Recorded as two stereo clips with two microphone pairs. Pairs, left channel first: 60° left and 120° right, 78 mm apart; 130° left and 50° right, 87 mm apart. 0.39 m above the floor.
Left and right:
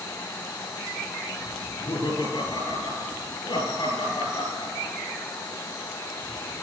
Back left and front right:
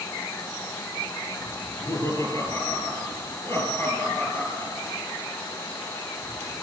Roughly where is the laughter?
Left.